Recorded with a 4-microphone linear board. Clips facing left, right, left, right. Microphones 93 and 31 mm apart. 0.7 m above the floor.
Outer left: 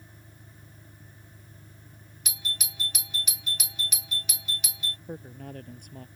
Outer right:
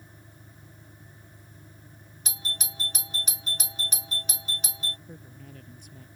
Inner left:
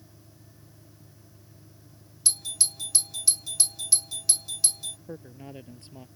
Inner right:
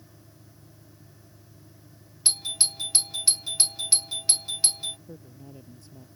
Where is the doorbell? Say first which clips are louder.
Outer right 1 dB, inner right 4 dB; 35° right (ahead or behind).